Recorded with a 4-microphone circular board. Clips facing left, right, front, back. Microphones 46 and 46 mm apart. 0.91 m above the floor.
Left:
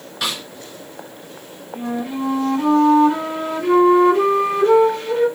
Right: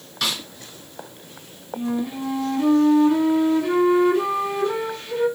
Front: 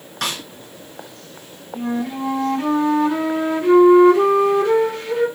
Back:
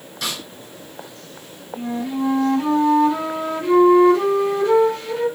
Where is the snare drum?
20° left, 1.4 m.